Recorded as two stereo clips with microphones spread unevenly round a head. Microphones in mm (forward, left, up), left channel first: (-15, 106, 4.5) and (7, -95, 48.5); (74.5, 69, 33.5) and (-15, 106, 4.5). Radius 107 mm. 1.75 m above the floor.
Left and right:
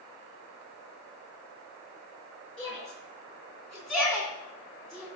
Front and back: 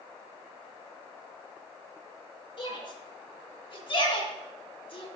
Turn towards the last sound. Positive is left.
turn(degrees=5)